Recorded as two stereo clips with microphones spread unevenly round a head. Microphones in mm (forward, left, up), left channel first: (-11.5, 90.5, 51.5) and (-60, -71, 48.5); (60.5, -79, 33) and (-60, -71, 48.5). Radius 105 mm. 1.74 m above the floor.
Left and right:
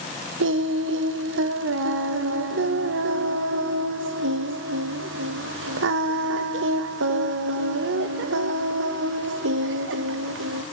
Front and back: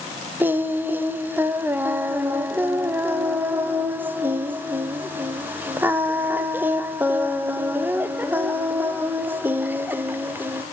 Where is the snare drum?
No snare drum in this recording.